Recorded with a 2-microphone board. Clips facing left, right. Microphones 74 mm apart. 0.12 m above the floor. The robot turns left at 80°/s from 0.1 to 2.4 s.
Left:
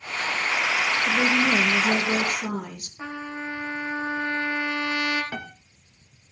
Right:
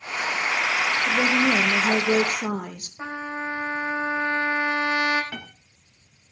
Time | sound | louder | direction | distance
1.1 | a woman speaking | right 1 dB | 10° right | 3 m
3.0 | a trumpet | right 3 dB | 30° right (ahead or behind) | 2.5 m
5.3 | a piano | left 3 dB | 15° left (ahead or behind) | 1.4 m